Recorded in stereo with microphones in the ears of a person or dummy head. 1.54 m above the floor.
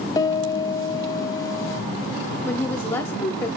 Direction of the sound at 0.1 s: 25° left (ahead or behind).